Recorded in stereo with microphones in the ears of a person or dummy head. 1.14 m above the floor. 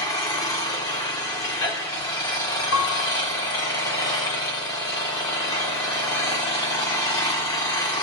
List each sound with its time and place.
0.0 s an engine running: 20° left (ahead or behind), 1.3 m
2.7 s a piano: 75° left (ahead or behind), 1.8 m